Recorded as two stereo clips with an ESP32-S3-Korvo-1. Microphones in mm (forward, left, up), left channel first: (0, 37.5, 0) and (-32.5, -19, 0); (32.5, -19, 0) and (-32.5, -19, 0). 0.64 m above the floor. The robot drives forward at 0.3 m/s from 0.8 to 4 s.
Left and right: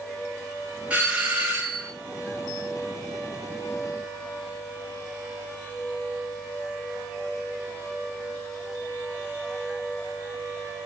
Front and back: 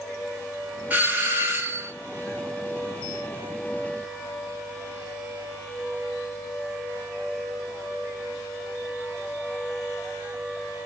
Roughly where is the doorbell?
Behind right.